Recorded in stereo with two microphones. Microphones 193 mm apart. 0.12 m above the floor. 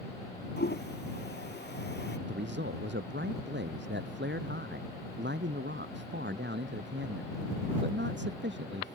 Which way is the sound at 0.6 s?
65° left (ahead or behind).